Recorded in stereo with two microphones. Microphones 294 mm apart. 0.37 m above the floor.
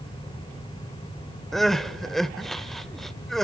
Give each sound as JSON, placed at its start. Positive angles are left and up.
{"t": 1.5, "sound": "crying", "side_deg": 0, "distance_m": 0.7}